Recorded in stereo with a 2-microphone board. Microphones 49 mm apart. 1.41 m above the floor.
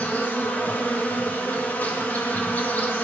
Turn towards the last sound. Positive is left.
turn(degrees=35)  # may be behind; listen again after turning